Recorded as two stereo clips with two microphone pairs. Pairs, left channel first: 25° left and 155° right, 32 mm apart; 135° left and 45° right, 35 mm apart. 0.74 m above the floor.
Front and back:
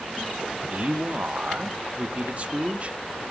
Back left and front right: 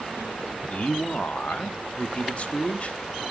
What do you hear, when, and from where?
0.7 s a man speaking: 170° left, 1.2 m